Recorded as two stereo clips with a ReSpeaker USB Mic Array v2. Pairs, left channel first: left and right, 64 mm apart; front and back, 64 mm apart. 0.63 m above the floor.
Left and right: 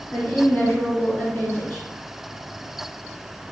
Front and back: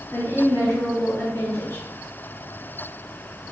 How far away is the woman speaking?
About 2 m.